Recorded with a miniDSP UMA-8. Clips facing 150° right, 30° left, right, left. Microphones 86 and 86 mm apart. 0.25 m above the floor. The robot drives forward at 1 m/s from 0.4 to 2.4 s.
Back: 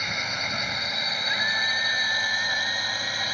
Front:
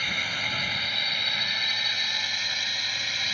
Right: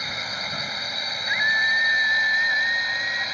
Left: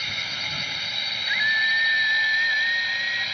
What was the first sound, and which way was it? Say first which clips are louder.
A drone: back 1 dB, right 2 dB; 100° right.